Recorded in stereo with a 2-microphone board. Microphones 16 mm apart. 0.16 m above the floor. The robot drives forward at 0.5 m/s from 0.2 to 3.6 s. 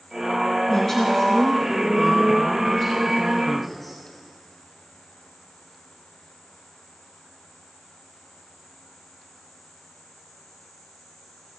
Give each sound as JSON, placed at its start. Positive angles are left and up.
{"t": 0.7, "sound": "a woman speaking", "side_deg": 35, "distance_m": 1.4}